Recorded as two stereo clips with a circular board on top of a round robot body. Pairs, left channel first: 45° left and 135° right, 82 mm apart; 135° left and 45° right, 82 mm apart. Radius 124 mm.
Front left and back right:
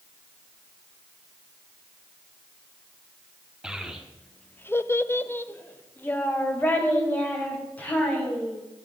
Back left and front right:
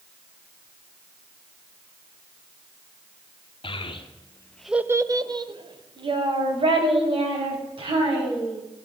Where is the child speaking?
140° left, 1.5 m; by 8.6 s 30° right, 5.5 m.